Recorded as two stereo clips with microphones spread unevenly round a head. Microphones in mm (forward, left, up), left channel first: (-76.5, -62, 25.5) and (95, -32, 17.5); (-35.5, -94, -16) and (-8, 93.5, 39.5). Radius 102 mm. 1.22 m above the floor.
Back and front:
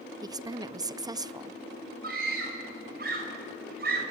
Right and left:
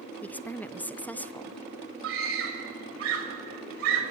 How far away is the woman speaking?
About 0.7 m.